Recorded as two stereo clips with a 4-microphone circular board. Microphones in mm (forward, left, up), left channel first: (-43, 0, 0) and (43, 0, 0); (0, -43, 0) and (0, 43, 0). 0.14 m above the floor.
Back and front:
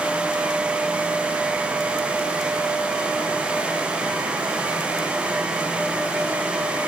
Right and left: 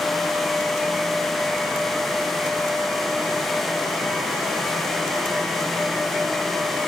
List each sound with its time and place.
Only background noise.